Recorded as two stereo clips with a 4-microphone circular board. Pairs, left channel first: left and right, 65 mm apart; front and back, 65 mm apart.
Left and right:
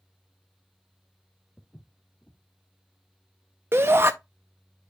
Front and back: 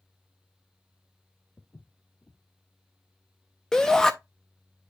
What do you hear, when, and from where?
1.6 s footsteps: 30° left, 1.0 m
3.7 s a shout: 75° right, 0.6 m